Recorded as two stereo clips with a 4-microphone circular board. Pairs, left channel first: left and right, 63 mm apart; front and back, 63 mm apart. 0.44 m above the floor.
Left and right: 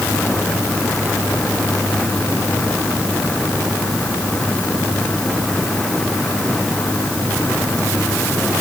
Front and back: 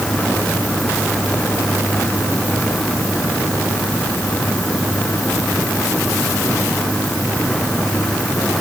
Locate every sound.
Only background noise.